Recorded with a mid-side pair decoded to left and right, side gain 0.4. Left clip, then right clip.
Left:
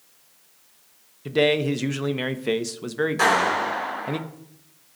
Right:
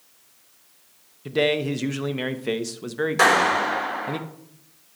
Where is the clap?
50° right, 4.5 m.